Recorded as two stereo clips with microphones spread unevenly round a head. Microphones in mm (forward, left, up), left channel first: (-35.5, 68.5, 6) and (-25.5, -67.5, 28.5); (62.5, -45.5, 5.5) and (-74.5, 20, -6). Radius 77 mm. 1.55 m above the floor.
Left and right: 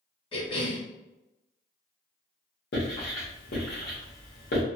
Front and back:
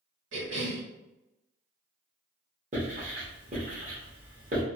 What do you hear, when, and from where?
0.3 s a cough: 150° left, 1.6 m
2.7 s writing: 105° left, 1.6 m